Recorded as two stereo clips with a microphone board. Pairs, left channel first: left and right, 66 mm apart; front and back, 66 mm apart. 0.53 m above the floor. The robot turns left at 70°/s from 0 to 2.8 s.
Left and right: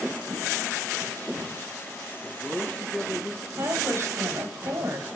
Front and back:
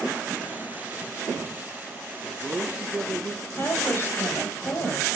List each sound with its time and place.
2.2 s a man speaking: 160° right, 0.7 m; by 3.5 s 160° left, 0.7 m
3.6 s a woman speaking: 50° right, 2.5 m